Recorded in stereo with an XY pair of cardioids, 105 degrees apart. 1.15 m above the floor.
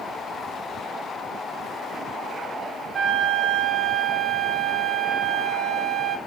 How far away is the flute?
About 1.4 m.